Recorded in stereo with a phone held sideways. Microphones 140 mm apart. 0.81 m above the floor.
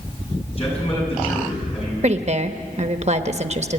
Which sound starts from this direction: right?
A woman speaking, at 2.0 s.